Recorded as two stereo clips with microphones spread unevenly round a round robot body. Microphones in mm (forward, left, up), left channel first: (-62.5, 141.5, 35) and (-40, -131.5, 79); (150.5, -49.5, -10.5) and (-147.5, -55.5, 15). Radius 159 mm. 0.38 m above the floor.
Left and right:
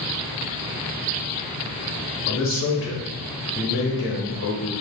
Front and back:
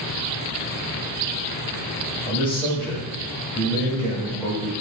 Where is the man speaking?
80° left, 1.3 m.